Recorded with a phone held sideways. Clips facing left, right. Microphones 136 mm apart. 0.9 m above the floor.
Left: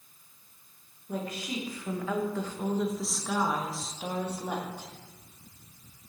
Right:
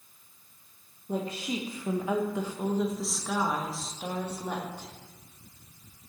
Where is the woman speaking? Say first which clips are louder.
Right 3 dB; 30° right (ahead or behind), 1.1 m; by 4.9 s 10° left (ahead or behind), 2.5 m.